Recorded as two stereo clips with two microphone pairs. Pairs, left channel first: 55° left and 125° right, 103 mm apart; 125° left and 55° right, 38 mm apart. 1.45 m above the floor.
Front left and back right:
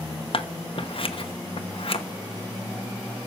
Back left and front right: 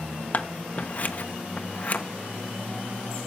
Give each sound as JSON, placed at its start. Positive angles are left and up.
{"t": 0.3, "sound": "scissors", "azimuth_deg": 80, "distance_m": 1.1}